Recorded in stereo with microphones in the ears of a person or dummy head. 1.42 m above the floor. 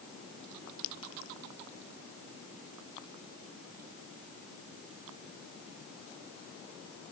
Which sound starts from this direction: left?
A clink, at 0.8 s.